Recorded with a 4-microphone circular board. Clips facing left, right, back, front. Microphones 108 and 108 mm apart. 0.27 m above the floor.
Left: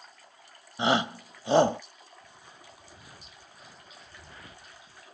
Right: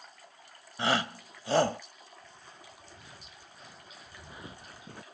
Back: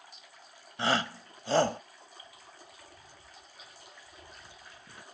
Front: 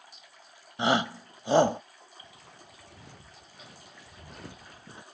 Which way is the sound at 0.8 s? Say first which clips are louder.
Left 4 dB, front 4 dB; 50° left.